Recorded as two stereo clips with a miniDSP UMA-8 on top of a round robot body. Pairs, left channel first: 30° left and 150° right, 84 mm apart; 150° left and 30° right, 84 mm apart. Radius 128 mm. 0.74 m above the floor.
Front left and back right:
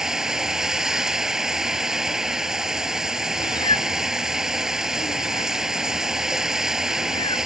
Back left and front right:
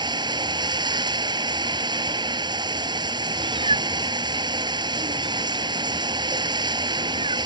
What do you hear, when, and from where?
0.0 s running water: 65° right
3.4 s a cat meowing: 5° right